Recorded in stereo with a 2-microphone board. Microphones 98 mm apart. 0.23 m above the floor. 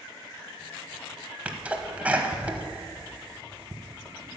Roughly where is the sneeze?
Centre.